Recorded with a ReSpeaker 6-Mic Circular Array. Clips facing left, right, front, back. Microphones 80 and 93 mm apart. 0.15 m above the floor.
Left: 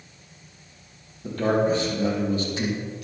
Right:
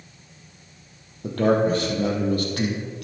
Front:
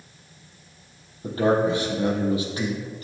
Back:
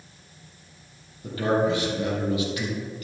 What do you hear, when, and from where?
1.2 s a man speaking: 60° right, 4.5 m